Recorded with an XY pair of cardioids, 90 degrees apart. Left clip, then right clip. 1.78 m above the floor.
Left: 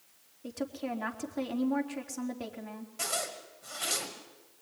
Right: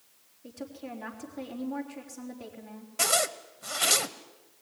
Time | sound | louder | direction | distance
0.4 | a woman speaking | left 5 dB | 55° left | 4 m
3.0 | a zipper | right 8 dB | 65° right | 1.4 m